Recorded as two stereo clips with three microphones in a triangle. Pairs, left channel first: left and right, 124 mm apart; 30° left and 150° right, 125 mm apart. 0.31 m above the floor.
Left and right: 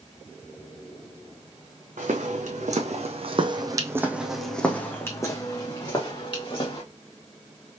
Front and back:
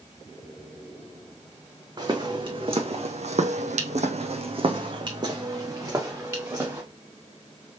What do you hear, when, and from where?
2.0 s footsteps: 95° right, 1.1 m; by 6.8 s 140° left, 1.7 m